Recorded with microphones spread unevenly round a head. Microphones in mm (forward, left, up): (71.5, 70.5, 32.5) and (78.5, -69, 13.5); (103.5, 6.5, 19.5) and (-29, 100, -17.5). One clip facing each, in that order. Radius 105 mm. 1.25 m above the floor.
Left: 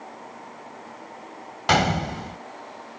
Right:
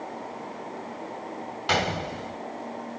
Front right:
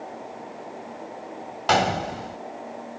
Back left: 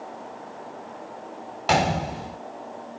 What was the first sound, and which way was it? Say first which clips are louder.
A gunshot: left 5 dB, even; 60° left.